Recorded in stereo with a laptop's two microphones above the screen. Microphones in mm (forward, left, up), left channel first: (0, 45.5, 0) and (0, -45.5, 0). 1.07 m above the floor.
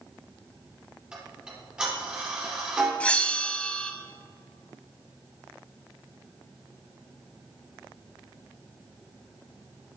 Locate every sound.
1.1 s ticking: 10° right (ahead or behind), 4.5 m
3.0 s a bell: 15° left (ahead or behind), 0.9 m